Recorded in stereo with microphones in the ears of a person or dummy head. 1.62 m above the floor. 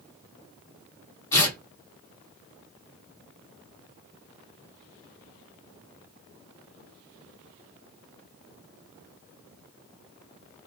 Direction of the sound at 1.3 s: 15° left (ahead or behind).